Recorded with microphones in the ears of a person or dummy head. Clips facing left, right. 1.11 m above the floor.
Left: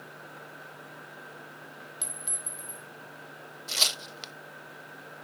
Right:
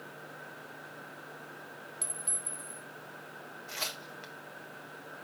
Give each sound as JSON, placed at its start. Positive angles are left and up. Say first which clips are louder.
{"t": 2.0, "sound": "a clink", "louder": "left 1 dB", "side_deg": 15, "distance_m": 1.6}
{"t": 3.7, "sound": "tearing paper", "louder": "left 5 dB", "side_deg": 50, "distance_m": 0.6}